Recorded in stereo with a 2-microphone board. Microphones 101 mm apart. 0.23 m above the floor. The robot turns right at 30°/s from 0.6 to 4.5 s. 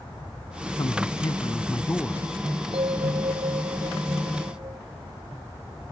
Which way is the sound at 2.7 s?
100° right.